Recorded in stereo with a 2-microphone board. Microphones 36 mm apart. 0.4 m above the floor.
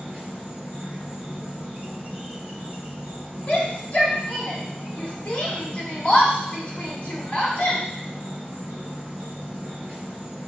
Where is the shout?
40° left (ahead or behind), 1.6 m.